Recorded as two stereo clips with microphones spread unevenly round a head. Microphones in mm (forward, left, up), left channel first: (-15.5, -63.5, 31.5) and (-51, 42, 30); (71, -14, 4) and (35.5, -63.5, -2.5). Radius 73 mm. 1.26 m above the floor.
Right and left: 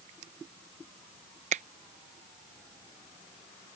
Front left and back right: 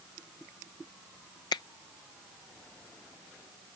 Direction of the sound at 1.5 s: 70° left.